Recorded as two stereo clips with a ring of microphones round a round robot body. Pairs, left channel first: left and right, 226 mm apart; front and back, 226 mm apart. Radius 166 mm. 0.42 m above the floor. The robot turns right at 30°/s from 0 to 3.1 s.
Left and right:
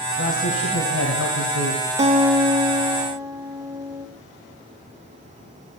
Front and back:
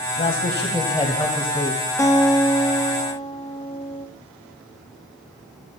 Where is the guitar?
65° right, 1.0 m; by 4.1 s 30° right, 1.0 m.